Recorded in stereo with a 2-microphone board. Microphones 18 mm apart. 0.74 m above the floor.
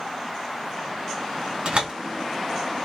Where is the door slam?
70° right (ahead or behind), 1.5 m.